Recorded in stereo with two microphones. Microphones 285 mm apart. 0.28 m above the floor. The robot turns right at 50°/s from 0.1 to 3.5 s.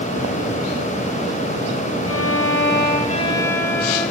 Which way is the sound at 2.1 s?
100° left.